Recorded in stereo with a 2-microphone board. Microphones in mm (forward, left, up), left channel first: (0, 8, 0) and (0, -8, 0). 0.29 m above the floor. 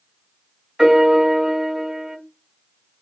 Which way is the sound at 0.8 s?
50° right (ahead or behind).